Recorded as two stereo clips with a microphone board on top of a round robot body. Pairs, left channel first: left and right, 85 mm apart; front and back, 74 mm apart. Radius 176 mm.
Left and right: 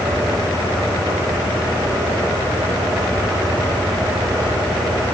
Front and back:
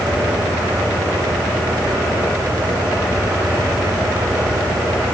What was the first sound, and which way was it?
Only background noise.